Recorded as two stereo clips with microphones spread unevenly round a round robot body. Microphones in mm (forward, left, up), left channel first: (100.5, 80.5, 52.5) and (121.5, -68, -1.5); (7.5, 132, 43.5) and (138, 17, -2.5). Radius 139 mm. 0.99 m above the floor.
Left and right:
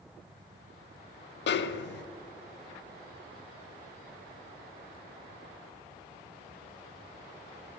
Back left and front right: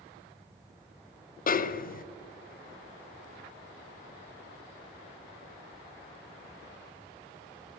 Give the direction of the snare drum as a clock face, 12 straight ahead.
9 o'clock.